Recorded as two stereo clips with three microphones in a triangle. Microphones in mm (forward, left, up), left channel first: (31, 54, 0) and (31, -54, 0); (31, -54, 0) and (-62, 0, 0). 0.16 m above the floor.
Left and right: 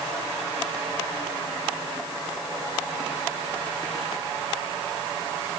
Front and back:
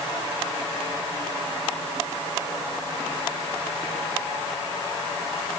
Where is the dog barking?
I don't hear a dog barking.